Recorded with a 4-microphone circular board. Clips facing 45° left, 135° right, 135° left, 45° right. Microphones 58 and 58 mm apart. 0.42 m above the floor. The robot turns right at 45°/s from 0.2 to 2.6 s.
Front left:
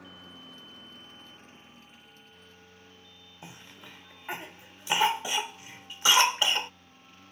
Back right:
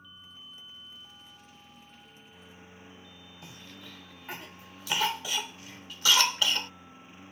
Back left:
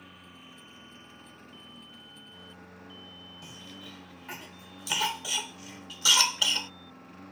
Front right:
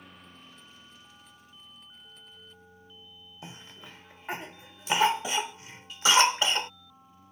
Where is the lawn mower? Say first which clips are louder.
Front left 3 dB, back left 1 dB; 45° left; by 7.3 s 155° left.